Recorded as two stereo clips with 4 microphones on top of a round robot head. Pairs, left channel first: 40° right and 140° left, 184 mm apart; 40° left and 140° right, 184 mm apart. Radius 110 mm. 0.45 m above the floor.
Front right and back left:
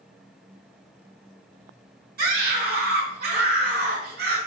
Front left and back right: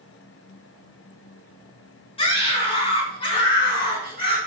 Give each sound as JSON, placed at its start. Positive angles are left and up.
{"t": 2.2, "sound": "a scream", "azimuth_deg": 100, "distance_m": 5.5}